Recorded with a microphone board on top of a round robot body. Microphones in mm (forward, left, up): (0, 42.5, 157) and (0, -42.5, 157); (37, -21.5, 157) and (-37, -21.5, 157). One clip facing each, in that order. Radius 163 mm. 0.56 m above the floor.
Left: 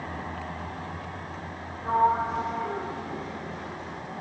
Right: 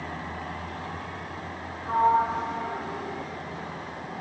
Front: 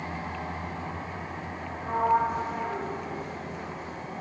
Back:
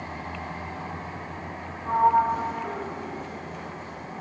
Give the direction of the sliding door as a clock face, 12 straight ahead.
9 o'clock.